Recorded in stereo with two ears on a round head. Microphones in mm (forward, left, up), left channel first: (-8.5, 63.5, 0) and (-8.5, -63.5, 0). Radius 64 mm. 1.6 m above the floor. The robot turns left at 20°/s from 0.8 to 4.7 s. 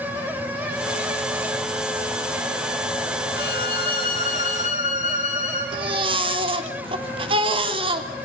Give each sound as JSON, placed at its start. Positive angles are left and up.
{"t": 3.4, "sound": "a violin", "side_deg": 75, "distance_m": 5.0}
{"t": 5.7, "sound": "a baby crying", "side_deg": -40, "distance_m": 3.0}